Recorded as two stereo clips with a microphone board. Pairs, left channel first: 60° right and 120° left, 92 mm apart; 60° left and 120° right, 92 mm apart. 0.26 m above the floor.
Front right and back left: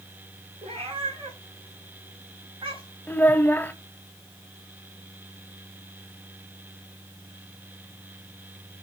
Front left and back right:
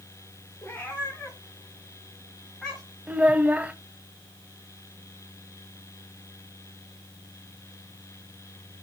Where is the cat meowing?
130° left, 4.5 m; by 2.8 s 145° left, 4 m.